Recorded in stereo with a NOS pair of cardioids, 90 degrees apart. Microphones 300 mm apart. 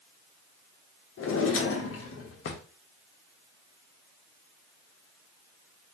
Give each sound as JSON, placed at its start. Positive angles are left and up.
{"t": 1.2, "sound": "a drawer", "azimuth_deg": 50, "distance_m": 0.9}